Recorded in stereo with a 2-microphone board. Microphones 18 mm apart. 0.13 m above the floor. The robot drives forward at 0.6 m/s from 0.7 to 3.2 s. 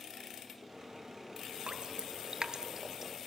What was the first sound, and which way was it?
Dripping, 55° right (ahead or behind).